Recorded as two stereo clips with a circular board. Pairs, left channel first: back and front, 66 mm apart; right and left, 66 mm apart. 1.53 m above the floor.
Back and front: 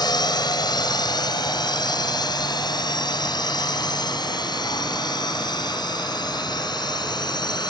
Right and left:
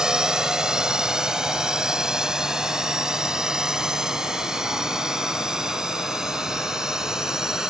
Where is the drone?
170° left.